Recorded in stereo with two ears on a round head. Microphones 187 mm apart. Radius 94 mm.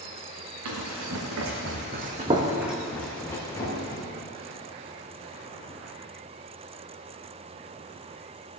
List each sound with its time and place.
0.7 s running footsteps: 75° right (ahead or behind), 2.5 m; by 4.0 s 25° left (ahead or behind), 3 m